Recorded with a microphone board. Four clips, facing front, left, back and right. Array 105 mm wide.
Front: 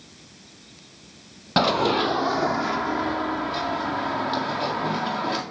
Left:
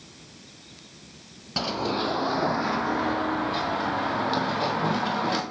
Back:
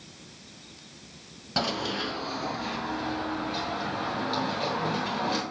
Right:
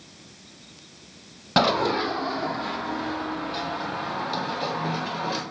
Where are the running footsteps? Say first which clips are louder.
Right 6 dB, front 10 dB; 50° right, 0.6 m; by 5.4 s 60° left, 4 m.